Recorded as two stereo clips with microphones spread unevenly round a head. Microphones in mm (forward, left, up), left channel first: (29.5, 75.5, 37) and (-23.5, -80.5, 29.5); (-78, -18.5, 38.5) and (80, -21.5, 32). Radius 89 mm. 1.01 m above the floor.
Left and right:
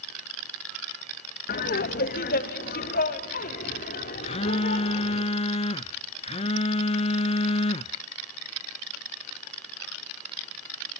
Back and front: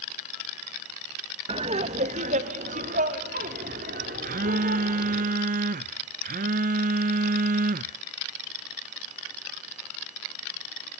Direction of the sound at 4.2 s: 20° left.